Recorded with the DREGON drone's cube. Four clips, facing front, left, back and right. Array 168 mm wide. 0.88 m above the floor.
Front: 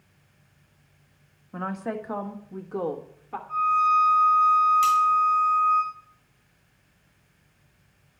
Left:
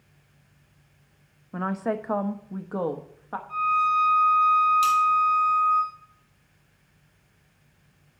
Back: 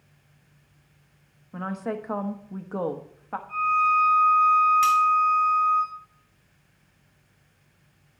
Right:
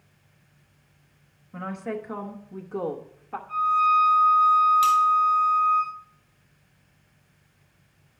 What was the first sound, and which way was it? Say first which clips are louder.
A woman speaking: left 4 dB, even; 80° left.